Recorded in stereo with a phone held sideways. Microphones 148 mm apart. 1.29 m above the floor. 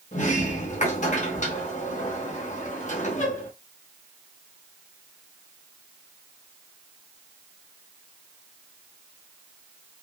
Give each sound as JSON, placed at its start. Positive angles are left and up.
{"t": 0.1, "sound": "a sliding door", "side_deg": 55, "distance_m": 0.8}